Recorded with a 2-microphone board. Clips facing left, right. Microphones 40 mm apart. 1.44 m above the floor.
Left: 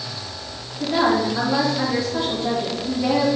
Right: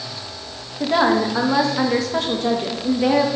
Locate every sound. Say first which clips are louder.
0.8 s a woman speaking: right 2 dB; 90° right, 1.8 m